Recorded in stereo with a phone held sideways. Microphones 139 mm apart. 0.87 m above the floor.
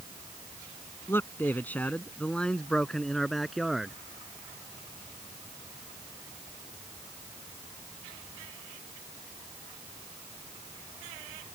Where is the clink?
No clink in this recording.